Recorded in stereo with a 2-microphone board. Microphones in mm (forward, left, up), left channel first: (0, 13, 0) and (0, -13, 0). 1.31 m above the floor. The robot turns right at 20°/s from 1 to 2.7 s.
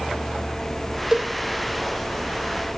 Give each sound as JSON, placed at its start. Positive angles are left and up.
{"t": 1.1, "sound": "a cowbell", "side_deg": -30, "distance_m": 3.5}